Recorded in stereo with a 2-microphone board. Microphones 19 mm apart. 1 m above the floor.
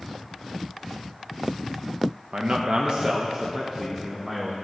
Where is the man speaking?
50° right (ahead or behind), 0.8 m; by 4.6 s 15° right (ahead or behind), 1.6 m.